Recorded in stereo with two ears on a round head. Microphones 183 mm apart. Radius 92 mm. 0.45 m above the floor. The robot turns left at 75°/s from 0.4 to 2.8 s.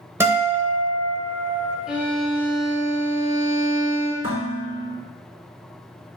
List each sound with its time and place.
0.2 s a guitar: 10° right, 0.9 m; by 1.8 s 115° right, 0.9 m
1.9 s a violin: 5° right, 1.1 m; by 4.1 s 75° right, 1.1 m
4.2 s dishes clattering: 40° right (ahead or behind), 2.5 m